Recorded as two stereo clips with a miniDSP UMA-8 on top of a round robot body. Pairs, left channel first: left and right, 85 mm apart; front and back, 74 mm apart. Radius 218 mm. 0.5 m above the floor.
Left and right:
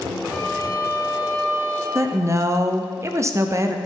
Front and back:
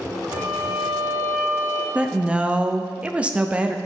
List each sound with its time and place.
0.3 s a violin: 160° right, 2.5 m
1.9 s a woman speaking: 115° right, 0.8 m